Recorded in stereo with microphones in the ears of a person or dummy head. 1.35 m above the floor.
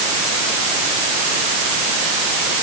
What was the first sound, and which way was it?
Only background noise.